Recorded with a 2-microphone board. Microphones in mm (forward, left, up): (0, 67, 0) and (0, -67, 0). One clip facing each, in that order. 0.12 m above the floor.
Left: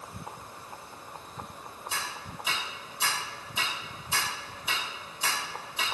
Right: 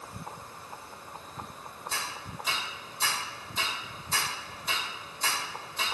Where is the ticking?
10° left (ahead or behind), 1.5 m.